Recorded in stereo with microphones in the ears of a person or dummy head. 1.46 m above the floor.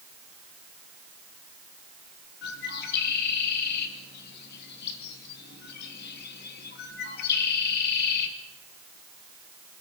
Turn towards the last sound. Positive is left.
turn(degrees=60)  # may be behind; listen again after turning